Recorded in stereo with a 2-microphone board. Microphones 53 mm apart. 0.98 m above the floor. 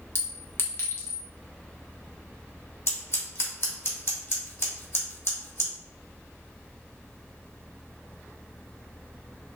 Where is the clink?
50° left (ahead or behind), 0.7 m.